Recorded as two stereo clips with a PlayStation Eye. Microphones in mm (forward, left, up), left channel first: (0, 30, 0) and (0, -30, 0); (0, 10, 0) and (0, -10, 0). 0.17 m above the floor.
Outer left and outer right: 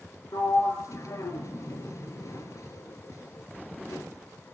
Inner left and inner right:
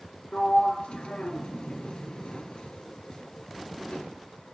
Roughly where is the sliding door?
Left.